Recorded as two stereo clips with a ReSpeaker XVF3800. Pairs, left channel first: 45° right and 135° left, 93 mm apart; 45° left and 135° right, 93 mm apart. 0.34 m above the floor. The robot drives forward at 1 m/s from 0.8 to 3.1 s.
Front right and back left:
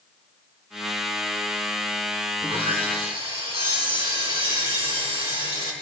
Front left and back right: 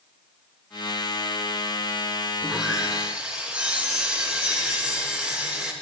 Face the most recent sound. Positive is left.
turn(degrees=150)